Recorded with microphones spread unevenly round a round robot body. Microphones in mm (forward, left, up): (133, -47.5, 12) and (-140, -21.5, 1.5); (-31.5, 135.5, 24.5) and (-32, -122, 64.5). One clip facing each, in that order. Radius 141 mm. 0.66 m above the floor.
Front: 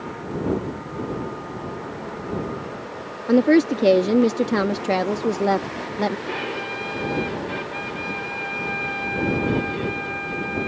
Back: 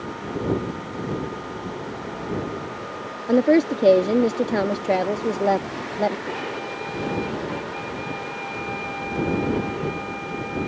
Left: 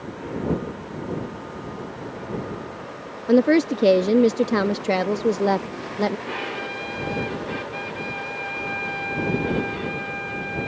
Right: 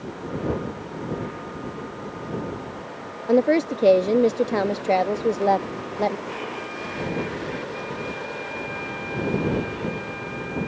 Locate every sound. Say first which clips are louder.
3.3 s a woman speaking: front 2 dB, left 2 dB; 60° left
6.3 s a violin: front 1 dB, left 1 dB; 55° left